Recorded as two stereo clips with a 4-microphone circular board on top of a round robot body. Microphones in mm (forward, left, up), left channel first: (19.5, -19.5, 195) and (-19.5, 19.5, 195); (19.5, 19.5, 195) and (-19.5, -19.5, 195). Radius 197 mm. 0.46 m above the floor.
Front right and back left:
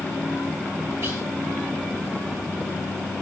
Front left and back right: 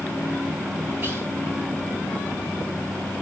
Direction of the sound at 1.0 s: 170° left.